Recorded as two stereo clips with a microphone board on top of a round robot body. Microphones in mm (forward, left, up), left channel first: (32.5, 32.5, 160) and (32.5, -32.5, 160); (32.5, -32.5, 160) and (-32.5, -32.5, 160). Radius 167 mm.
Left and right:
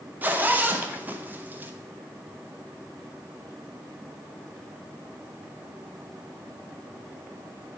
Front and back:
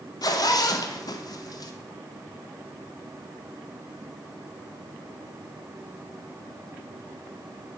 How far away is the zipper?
About 0.9 m.